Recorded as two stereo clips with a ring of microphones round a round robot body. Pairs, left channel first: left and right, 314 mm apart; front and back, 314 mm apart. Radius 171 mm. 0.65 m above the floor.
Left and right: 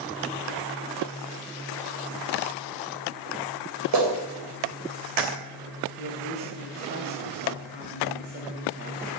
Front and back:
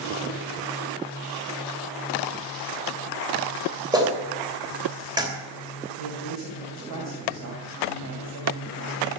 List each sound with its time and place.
3.9 s a clap: 105° right, 3 m
6.0 s a woman speaking: 140° right, 3 m